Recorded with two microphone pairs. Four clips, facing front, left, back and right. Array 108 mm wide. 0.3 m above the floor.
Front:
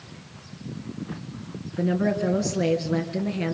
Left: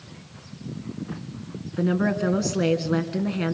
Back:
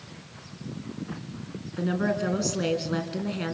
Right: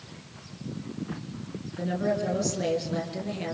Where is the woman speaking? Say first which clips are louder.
Left 5 dB, front 3 dB; 100° left, 2.5 m.